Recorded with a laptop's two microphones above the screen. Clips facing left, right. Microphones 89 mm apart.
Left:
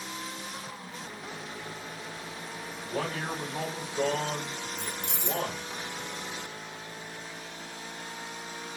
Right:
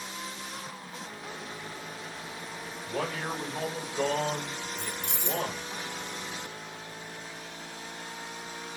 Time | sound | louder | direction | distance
2.8 | a man speaking | even | 20° left (ahead or behind) | 1.4 m
4.8 | keys jangling | even | 65° right (ahead or behind) | 0.8 m